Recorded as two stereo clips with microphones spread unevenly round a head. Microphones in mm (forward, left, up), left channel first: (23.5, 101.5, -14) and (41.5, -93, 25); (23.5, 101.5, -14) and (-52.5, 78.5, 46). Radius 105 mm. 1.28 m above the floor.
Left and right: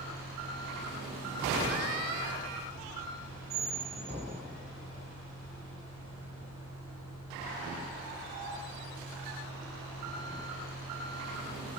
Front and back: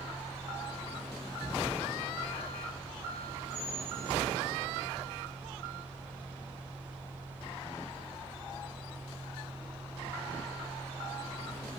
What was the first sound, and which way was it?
A fan, 115° left.